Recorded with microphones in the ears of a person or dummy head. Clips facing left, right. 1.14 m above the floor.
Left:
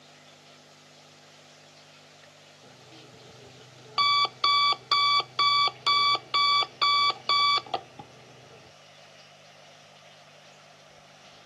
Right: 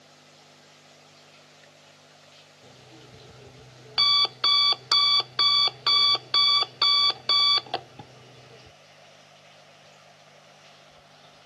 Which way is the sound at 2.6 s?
15° right (ahead or behind).